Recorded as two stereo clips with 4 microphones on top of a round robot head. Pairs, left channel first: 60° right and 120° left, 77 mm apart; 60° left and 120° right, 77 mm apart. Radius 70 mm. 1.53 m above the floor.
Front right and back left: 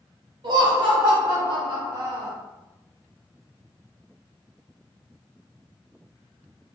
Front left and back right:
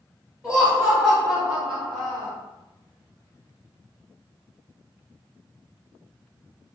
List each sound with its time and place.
0.4 s laughter: 160° left, 1.8 m; by 2.3 s 150° left, 0.6 m